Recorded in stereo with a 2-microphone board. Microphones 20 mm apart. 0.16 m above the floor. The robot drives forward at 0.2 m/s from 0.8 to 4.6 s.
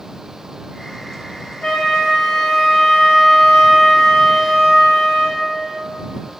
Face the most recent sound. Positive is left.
turn(degrees=30)  # may be behind; listen again after turning